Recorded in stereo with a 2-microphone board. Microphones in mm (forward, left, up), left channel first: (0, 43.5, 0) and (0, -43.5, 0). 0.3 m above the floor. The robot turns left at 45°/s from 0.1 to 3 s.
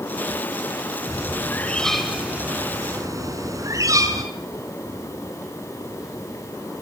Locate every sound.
1.1 s a bird: 40° left, 4 m; by 4.2 s 45° right, 4 m